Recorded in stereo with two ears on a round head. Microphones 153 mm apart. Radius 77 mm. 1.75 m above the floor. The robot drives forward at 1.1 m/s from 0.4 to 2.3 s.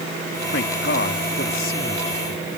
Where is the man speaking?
75° left (ahead or behind); by 2.5 s 45° left (ahead or behind).